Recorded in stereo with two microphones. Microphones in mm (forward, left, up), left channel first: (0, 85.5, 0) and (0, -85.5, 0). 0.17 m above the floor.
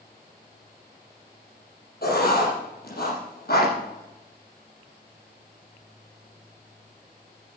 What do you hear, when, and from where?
2.0 s writing: 65° left (ahead or behind), 6 m